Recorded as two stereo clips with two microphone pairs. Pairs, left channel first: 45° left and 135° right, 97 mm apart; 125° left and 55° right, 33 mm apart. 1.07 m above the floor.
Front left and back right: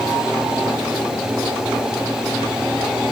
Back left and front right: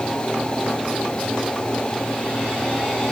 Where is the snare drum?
I don't hear a snare drum.